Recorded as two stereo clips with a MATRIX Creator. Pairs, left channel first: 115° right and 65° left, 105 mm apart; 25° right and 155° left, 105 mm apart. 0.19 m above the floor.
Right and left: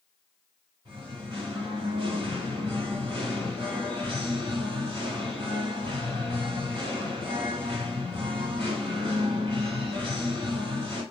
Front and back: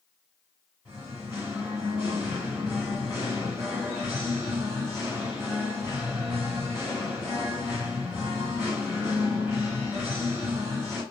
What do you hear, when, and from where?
0.8 s singing: 95° left, 2 m